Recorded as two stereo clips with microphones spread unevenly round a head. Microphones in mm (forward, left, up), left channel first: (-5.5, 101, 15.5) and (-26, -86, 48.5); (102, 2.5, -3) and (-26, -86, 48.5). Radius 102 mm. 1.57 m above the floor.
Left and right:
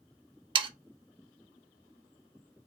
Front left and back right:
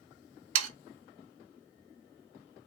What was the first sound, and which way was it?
Sawing, 165° right.